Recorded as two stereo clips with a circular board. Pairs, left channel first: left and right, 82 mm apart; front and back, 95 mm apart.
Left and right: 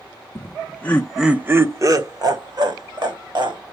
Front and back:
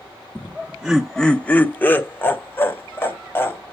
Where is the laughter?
110° left, 1.1 m; by 3.6 s 65° right, 2.5 m.